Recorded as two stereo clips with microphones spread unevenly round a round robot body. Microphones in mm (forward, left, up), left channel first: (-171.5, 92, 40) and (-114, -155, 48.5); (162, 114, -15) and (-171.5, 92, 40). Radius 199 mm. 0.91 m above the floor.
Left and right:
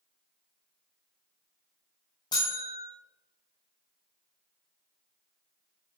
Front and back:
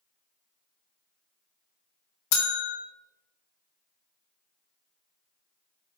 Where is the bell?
30° left, 1.3 m.